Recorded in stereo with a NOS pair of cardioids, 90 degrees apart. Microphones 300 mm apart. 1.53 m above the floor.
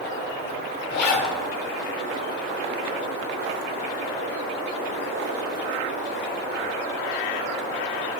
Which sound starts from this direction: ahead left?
A zipper, at 0.9 s.